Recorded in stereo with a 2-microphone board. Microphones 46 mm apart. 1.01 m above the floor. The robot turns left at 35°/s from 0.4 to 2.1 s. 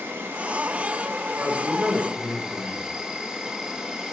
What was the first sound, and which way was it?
An insect, 100° right.